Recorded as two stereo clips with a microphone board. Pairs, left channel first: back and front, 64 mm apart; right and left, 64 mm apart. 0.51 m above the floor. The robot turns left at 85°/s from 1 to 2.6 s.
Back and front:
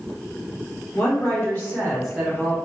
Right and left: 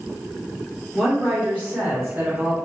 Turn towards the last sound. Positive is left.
turn(degrees=50)